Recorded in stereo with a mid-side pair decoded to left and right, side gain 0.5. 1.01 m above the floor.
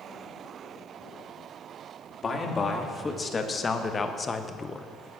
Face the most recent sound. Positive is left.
turn(degrees=25)